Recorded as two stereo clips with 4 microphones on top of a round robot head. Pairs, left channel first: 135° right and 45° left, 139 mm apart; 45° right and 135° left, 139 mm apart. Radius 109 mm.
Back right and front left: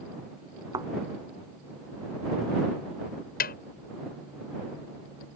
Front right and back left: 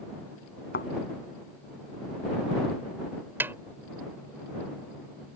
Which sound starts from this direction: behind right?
A snare drum, at 3.4 s.